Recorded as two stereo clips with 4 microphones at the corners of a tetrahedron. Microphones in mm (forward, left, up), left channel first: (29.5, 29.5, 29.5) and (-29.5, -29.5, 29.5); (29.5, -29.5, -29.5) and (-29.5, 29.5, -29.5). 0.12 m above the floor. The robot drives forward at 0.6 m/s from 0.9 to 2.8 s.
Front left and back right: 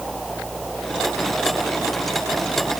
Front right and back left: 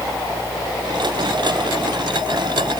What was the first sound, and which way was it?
Only background noise.